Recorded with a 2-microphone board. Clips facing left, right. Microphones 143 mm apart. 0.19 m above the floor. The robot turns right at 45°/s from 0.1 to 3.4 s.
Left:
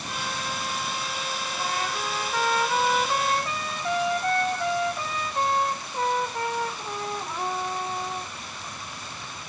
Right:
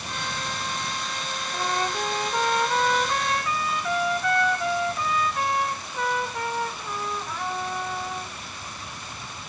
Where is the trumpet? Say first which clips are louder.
Right 5 dB; 55° right, 1.4 m; by 8.3 s 30° left, 1.4 m.